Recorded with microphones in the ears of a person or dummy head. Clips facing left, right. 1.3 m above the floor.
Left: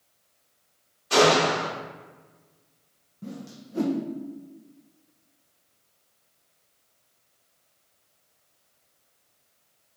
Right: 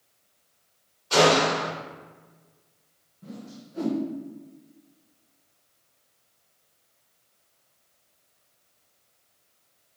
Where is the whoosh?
55° left (ahead or behind), 0.6 m.